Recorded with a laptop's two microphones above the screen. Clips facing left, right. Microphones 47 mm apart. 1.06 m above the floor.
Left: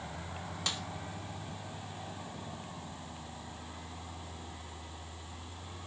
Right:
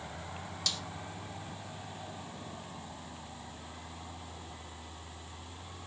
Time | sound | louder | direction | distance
0.7 | a snare drum | left 1 dB | 25° left (ahead or behind) | 1.4 m